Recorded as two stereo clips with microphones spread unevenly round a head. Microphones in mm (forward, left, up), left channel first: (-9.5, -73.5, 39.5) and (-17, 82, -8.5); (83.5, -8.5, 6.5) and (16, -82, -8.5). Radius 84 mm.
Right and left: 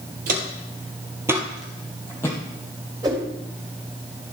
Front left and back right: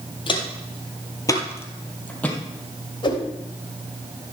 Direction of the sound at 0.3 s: 50° left.